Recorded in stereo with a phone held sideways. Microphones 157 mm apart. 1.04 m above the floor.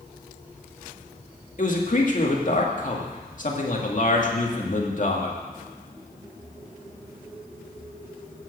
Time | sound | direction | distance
1.6 | a man speaking | 55° left (ahead or behind) | 2 m